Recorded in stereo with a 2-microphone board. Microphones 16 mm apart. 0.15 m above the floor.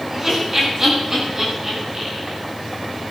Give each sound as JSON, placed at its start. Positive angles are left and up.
{"t": 0.1, "sound": "laughter", "side_deg": -20, "distance_m": 10.0}